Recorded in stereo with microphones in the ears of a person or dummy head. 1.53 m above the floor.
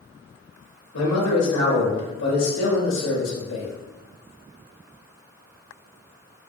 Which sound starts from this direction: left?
A man speaking, at 0.9 s.